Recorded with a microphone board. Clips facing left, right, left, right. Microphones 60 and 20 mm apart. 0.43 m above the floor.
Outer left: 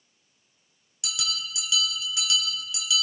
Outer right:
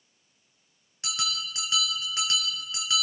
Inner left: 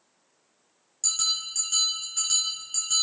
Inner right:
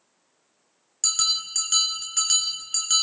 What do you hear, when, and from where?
1.0 s a bell: 40° right (ahead or behind), 3 m